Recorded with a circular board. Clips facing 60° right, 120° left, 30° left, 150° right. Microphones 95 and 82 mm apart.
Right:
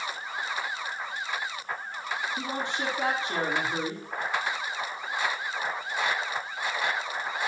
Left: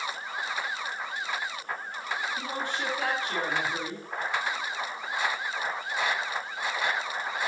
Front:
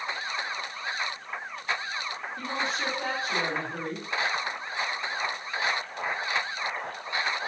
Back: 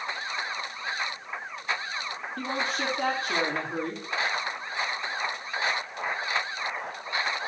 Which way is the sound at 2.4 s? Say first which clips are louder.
Right 1 dB, back 2 dB; 125° right.